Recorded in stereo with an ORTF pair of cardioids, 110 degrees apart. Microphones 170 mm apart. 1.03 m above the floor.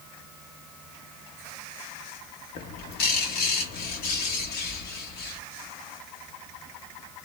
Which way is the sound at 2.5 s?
65° left.